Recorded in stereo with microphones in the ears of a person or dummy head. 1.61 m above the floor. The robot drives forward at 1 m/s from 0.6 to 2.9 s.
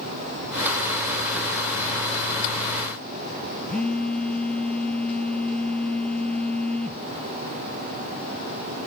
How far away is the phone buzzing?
About 0.5 m.